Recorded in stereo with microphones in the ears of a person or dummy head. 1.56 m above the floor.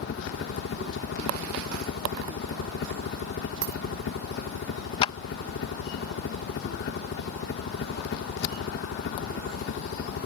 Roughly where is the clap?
Left.